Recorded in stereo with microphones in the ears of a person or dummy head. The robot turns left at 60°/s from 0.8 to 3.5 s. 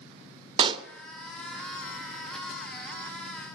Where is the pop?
30° right (ahead or behind), 0.9 m; by 0.9 s 35° right (ahead or behind), 0.9 m.